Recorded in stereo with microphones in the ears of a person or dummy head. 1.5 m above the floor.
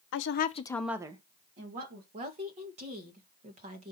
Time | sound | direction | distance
0.1 | a woman speaking | 70° left (ahead or behind) | 0.9 m
2.1 | a woman speaking | 35° right (ahead or behind) | 1.7 m